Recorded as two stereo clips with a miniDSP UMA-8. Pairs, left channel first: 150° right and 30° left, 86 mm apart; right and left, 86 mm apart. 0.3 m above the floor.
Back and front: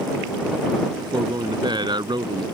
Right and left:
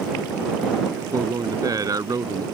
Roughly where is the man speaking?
Ahead left.